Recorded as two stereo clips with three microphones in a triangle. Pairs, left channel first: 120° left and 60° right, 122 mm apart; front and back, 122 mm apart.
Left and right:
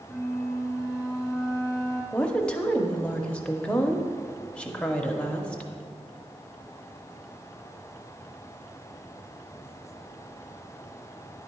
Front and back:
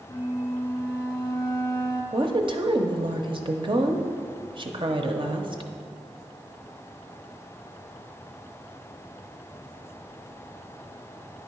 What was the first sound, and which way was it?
A flute, 25° left.